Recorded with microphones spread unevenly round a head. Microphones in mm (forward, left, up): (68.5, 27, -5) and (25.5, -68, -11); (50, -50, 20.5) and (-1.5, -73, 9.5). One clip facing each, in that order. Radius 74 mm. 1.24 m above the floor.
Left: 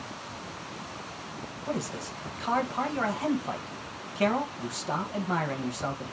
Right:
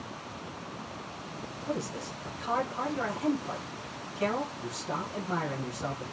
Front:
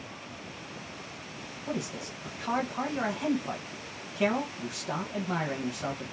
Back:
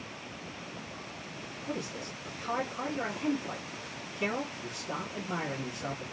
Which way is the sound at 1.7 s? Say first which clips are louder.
Left 1 dB, front 3 dB; 35° left.